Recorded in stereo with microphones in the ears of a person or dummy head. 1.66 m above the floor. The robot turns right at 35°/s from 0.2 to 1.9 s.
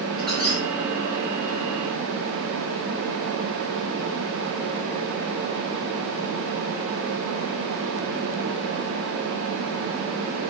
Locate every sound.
0.2 s a squeak: centre (ahead or behind), 1.3 m; by 0.6 s 10° left (ahead or behind), 1.3 m